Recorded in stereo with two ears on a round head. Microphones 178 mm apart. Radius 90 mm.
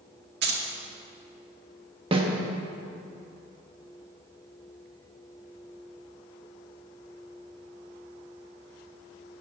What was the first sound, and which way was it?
Keys jangling, 55° right (ahead or behind).